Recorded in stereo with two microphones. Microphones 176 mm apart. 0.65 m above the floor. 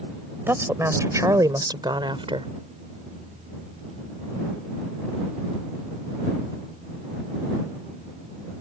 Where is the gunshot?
I don't hear a gunshot.